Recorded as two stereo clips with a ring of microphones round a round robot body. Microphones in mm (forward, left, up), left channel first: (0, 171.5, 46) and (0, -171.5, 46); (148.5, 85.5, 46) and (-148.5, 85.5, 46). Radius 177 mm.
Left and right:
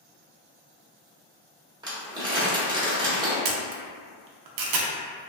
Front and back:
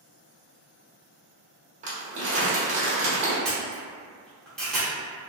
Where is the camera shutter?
85° right, 0.5 m.